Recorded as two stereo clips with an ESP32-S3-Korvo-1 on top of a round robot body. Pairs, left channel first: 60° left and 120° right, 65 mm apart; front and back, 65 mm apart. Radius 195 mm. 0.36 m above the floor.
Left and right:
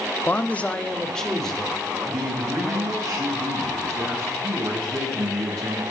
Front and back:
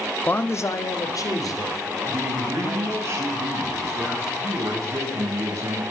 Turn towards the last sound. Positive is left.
turn(degrees=-140)